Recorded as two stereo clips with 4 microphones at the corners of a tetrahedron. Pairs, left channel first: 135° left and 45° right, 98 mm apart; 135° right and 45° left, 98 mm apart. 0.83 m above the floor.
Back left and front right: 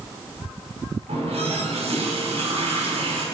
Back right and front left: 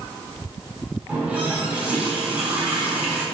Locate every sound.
1.1 s a running tap: 35° right, 5 m